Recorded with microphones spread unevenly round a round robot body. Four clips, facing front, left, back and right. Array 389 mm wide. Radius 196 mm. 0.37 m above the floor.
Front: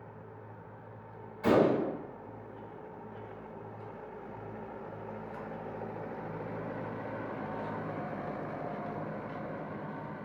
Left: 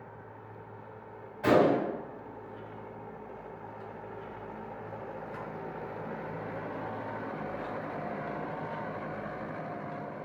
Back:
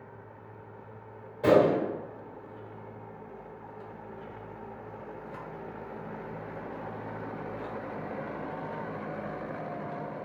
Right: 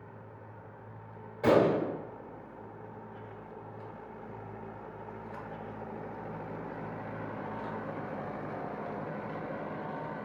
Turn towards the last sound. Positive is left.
turn(degrees=-140)